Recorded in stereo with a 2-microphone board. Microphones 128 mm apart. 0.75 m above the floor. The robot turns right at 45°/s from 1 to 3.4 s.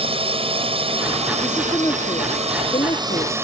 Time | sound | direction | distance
0.0 | a drone | 130° right | ?
1.4 | a woman speaking | 15° left | ?